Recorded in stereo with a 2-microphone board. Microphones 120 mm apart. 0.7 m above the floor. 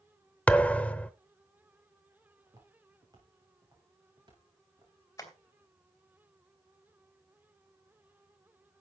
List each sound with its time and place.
0.5 s a thud: 10° left (ahead or behind), 0.8 m
2.5 s footsteps: 30° right (ahead or behind), 7 m; by 4.9 s 40° right (ahead or behind), 8.5 m
5.2 s tapping: 25° left (ahead or behind), 3 m